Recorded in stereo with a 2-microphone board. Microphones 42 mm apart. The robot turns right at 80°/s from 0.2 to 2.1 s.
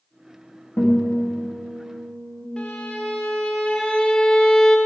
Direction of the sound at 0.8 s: 100° left.